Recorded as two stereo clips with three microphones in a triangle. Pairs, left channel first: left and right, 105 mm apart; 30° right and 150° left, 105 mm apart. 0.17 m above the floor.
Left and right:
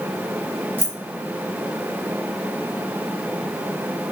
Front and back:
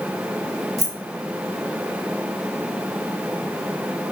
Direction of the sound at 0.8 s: 125° right.